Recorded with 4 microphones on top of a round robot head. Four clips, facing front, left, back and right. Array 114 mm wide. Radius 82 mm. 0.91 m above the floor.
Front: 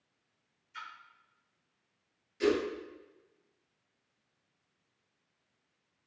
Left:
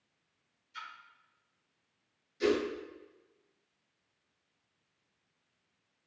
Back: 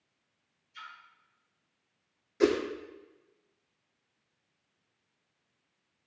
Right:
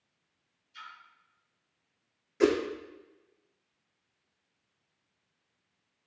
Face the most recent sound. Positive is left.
turn(degrees=-130)